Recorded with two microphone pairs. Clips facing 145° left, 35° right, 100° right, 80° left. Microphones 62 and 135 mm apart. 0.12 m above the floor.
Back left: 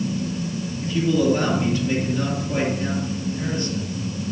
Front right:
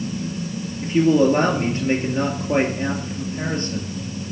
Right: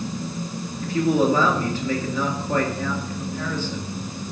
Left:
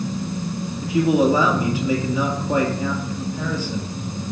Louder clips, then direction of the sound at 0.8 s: Front right 4 dB, left 2 dB; 5° left.